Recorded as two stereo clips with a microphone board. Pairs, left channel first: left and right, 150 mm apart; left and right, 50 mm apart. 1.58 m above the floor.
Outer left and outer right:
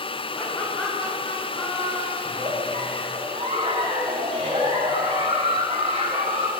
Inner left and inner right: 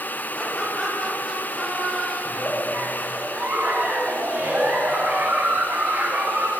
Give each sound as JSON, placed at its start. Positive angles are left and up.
{"t": 0.3, "sound": "laughter", "side_deg": 10, "distance_m": 7.0}
{"t": 2.2, "sound": "a giggle", "side_deg": -40, "distance_m": 7.0}